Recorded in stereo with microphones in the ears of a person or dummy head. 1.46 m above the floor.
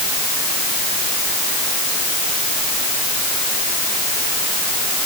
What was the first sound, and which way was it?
Only background noise.